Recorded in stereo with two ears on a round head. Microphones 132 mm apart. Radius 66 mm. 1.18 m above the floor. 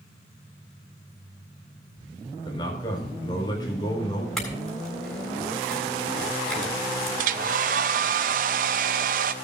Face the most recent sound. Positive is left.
turn(degrees=-60)  # may be behind; listen again after turning